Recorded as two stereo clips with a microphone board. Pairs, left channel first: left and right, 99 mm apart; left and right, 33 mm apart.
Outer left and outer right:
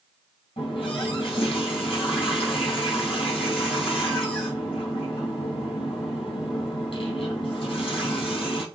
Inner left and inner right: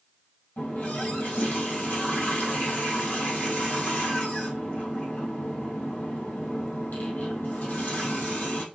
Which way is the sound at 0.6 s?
60° left (ahead or behind).